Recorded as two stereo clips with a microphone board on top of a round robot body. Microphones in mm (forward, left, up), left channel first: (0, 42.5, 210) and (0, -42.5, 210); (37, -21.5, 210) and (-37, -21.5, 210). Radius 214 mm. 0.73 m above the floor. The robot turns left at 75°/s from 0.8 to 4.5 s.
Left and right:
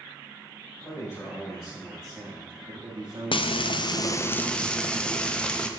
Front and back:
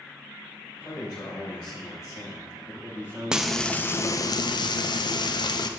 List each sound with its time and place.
0.8 s a man speaking: 60° left, 2.5 m; by 4.3 s 155° left, 2.5 m
3.3 s frying: 100° left, 0.7 m; by 5.7 s 10° left, 0.7 m